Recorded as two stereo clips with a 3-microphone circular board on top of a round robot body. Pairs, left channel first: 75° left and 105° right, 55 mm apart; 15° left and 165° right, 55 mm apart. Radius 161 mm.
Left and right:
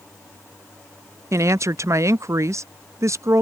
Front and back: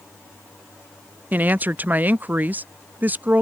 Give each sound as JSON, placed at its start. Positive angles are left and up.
{"t": 1.3, "sound": "a woman speaking", "azimuth_deg": -110}